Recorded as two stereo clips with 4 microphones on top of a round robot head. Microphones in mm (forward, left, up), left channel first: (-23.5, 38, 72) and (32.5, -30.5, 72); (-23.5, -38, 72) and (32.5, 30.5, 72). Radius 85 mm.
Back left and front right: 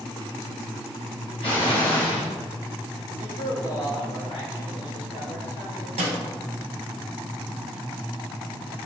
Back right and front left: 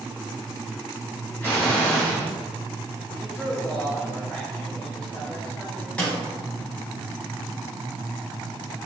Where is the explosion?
160° left, 2.5 m.